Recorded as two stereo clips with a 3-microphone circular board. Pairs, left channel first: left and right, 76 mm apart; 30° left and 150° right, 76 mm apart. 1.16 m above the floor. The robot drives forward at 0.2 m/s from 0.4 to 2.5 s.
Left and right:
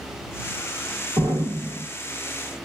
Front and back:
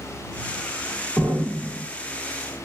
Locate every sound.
1.2 s an explosion: 80° right, 1.4 m; by 1.8 s 85° right, 1.4 m